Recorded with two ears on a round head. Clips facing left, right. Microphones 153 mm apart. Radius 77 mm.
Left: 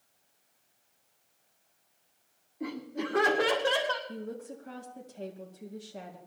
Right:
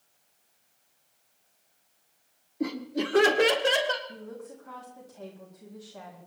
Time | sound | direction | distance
2.6 | laughter | 55° right (ahead or behind) | 1.9 m
4.1 | a woman speaking | 35° left (ahead or behind) | 2.0 m